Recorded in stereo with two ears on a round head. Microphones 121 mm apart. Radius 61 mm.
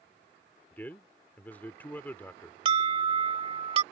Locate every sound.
0.7 s a man speaking: 15° left (ahead or behind)
2.6 s an alarm: 40° right (ahead or behind)